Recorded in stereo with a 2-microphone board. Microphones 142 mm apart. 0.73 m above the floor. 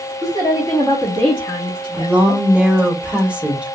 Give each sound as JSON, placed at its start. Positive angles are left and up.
{"t": 0.2, "sound": "a woman speaking", "side_deg": 30, "distance_m": 1.4}
{"t": 1.9, "sound": "a woman speaking", "side_deg": -10, "distance_m": 0.8}